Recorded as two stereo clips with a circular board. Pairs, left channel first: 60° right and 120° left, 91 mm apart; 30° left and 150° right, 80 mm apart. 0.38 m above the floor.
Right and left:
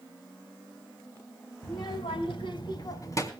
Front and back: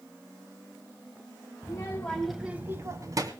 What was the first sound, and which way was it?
A child speaking, 15° right.